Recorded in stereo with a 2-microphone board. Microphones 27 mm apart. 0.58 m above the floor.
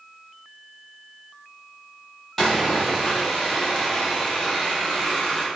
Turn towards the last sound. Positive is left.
turn(degrees=5)  # may be behind; listen again after turning